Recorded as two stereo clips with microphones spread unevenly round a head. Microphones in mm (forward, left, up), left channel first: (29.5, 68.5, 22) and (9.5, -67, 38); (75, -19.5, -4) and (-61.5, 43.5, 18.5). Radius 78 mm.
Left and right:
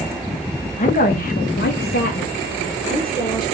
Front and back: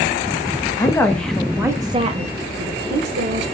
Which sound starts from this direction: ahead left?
A woman speaking, at 0.8 s.